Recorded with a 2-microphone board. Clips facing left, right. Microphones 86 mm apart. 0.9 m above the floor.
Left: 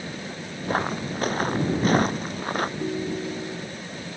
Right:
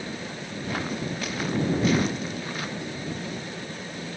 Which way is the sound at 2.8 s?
45° left (ahead or behind).